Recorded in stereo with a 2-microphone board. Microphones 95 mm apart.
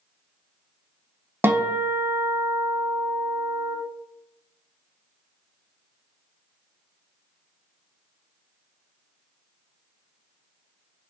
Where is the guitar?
25° right (ahead or behind), 0.5 m.